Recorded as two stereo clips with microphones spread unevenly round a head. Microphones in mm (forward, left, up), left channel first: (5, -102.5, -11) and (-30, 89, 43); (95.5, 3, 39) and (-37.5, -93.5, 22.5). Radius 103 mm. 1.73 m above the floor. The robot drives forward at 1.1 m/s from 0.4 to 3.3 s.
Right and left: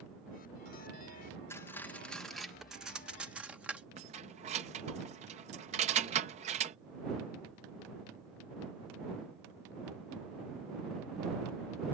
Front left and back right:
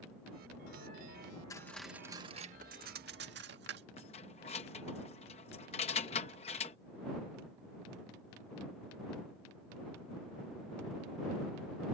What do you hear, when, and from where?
1.5 s cutlery clinking: 15° left; by 3.9 s 175° left
4.0 s keys jangling: 80° left